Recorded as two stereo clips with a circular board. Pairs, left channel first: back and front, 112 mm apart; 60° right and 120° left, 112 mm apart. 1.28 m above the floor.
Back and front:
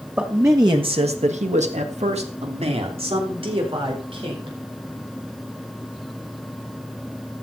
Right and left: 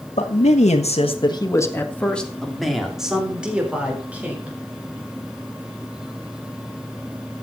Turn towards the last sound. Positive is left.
turn(degrees=45)